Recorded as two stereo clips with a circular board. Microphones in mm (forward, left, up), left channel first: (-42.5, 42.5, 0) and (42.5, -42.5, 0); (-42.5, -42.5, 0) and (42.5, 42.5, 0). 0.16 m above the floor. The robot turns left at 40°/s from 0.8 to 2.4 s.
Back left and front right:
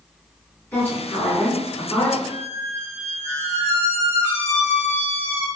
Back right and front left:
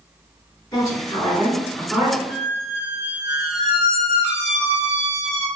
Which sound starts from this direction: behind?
A woman speaking, at 0.7 s.